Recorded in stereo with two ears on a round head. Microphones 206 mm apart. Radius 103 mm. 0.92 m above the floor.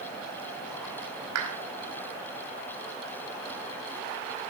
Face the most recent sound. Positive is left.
turn(degrees=-80)